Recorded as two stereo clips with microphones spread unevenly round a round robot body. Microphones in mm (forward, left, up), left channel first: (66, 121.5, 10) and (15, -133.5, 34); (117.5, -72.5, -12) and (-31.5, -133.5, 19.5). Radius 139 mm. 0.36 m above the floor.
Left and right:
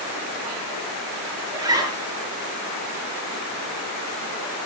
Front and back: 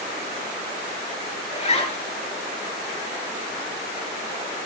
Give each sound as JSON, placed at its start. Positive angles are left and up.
{"t": 1.5, "sound": "a zipper", "azimuth_deg": -25, "distance_m": 6.0}